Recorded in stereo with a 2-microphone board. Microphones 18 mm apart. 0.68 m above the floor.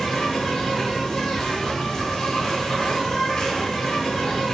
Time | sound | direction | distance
0.0 | an insect | 40° left (ahead or behind) | 0.8 m